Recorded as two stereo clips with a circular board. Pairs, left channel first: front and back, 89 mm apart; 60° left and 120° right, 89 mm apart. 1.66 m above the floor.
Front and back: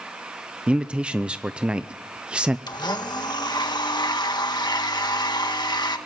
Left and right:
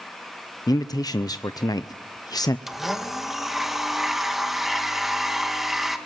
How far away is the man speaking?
About 0.6 m.